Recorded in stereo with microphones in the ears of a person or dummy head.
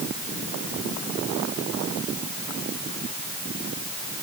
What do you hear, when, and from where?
Only background noise.